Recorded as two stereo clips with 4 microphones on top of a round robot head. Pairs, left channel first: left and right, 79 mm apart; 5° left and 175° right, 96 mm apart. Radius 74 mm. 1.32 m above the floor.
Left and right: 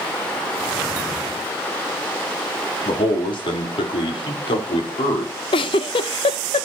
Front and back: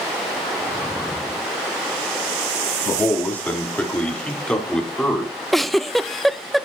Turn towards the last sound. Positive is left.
turn(degrees=95)